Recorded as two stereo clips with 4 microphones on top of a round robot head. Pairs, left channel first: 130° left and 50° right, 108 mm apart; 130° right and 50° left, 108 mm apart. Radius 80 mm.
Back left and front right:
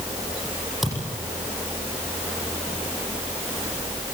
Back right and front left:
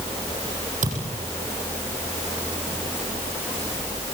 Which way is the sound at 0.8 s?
35° left.